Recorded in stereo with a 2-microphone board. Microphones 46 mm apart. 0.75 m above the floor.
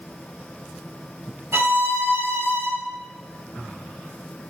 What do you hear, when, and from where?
1.5 s a violin: 70° right (ahead or behind), 2.5 m